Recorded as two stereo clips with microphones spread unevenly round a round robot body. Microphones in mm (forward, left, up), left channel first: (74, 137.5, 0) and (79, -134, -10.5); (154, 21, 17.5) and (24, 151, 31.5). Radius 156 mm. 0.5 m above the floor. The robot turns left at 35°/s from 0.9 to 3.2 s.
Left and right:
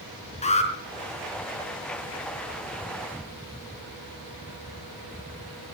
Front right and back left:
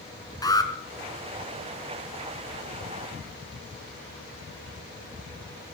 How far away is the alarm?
About 4 m.